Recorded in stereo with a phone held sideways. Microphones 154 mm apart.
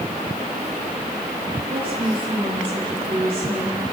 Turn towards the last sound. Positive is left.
turn(degrees=-35)  # may be behind; listen again after turning